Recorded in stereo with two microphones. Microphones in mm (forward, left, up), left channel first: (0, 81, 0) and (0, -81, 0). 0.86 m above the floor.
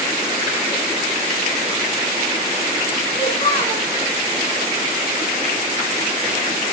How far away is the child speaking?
About 6.5 m.